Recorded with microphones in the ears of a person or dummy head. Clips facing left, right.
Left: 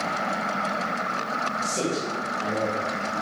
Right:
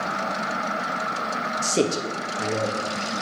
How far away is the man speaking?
About 0.9 m.